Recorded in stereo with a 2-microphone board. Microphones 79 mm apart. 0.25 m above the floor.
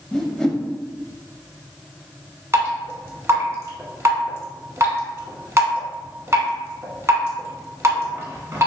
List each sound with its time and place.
0.1 s a whoosh: 10° left (ahead or behind), 0.6 m
2.5 s dripping: 35° right (ahead or behind), 0.9 m